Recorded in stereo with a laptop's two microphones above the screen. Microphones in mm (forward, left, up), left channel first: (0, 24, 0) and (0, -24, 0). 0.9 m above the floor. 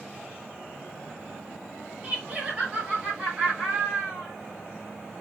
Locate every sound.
2.0 s laughter: 30° right (ahead or behind), 0.9 m; by 4.3 s 25° right (ahead or behind), 2 m